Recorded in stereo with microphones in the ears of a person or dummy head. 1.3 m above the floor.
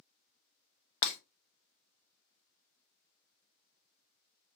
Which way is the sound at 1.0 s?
40° left (ahead or behind).